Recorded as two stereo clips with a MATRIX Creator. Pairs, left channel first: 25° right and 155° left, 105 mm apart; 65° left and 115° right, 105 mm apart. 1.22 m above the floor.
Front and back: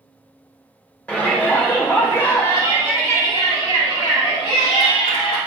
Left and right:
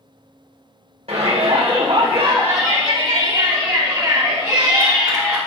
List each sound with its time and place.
1.1 s a shout: 100° right, 1.3 m; by 5.4 s 35° right, 3 m